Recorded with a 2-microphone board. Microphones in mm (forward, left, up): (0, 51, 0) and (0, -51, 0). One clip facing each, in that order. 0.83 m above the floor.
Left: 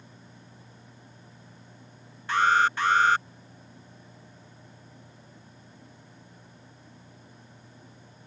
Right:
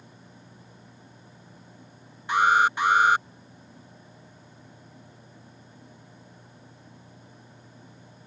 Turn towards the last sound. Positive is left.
turn(degrees=-15)  # may be behind; listen again after turning